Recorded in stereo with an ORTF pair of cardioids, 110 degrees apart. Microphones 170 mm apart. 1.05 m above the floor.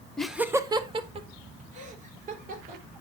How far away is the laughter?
About 1.2 m.